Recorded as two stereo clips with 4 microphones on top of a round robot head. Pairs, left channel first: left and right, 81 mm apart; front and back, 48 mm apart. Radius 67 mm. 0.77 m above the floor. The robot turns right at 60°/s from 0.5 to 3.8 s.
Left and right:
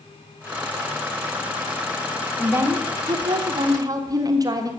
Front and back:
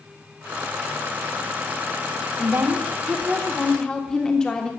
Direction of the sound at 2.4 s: 155° right.